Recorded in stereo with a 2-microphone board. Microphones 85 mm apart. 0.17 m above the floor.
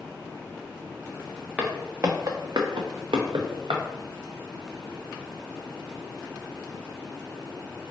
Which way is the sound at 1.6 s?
15° right (ahead or behind).